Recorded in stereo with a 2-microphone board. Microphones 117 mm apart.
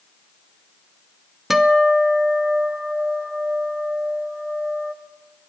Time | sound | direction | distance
1.5 | a guitar | centre (ahead or behind) | 0.7 m